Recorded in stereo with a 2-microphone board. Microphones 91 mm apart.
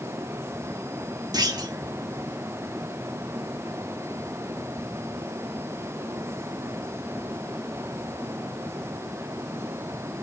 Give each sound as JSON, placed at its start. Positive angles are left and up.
{"t": 1.3, "sound": "a clunk", "side_deg": -45, "distance_m": 0.6}